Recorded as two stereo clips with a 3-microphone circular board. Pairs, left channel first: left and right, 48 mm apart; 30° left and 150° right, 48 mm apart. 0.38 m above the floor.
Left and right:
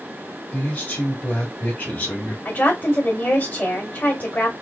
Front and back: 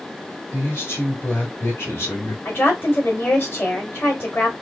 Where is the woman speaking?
65° left, 1.8 m.